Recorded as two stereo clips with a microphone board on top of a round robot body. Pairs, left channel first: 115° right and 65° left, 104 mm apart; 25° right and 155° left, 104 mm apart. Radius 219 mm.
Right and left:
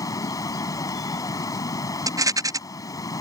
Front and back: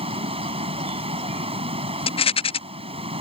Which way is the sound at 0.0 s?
170° right.